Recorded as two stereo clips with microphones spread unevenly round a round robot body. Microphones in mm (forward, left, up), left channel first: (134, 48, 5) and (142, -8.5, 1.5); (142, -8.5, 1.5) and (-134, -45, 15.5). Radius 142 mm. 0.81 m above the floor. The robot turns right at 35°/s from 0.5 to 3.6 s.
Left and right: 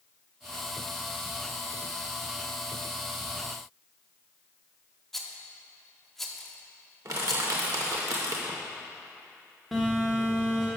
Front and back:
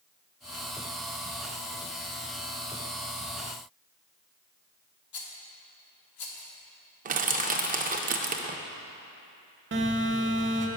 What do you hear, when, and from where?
5.1 s a rattle: 15° left, 1.2 m
7.0 s crushing: 115° right, 0.6 m
9.7 s a phone buzzing: 170° right, 0.9 m